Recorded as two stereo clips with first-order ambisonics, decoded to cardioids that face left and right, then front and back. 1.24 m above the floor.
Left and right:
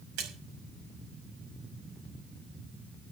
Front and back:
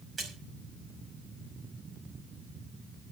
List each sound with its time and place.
0.2 s a splash: 100° right, 5.5 m